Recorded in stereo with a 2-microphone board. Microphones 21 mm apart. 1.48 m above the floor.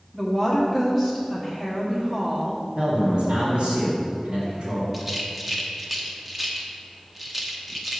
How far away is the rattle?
About 0.9 m.